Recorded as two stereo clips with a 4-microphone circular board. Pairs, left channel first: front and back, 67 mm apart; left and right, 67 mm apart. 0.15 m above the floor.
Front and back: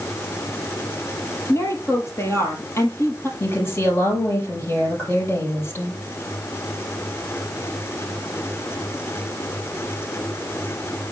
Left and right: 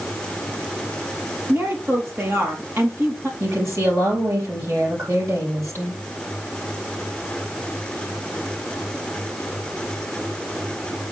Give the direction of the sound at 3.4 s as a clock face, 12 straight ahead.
2 o'clock.